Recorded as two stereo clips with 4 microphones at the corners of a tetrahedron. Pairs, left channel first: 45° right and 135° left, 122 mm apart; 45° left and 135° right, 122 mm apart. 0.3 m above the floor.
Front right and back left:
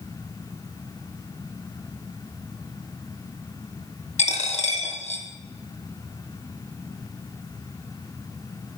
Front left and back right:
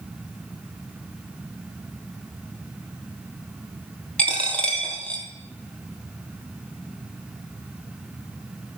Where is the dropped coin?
35° right, 1.7 m.